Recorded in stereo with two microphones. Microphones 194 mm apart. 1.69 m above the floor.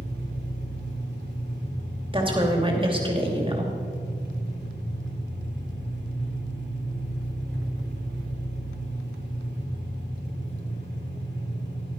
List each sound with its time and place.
0.0 s an engine running: 65° right (ahead or behind), 3.5 m
2.1 s a woman speaking: 25° right (ahead or behind), 2.5 m